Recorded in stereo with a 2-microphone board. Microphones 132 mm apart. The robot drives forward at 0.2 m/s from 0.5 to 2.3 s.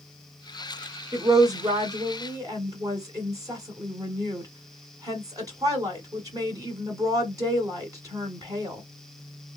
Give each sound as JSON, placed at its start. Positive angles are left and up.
{"t": 1.1, "sound": "a woman speaking", "side_deg": -25, "distance_m": 1.2}